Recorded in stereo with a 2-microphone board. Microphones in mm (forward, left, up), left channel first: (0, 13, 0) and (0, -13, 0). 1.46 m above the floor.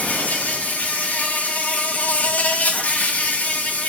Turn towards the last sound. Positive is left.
turn(degrees=85)